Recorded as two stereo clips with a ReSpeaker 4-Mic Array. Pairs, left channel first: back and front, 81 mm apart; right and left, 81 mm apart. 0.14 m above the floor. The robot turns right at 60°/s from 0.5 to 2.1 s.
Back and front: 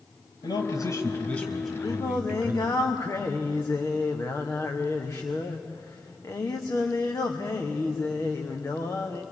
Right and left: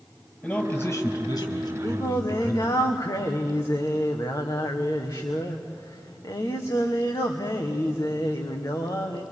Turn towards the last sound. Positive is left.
turn(degrees=-125)